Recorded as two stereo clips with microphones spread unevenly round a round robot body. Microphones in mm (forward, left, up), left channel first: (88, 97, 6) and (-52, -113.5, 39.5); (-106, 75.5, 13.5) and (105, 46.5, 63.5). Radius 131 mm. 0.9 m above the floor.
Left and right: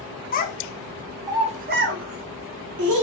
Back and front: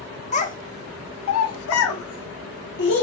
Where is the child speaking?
115° left, 1.0 m; by 3.0 s 140° right, 1.5 m.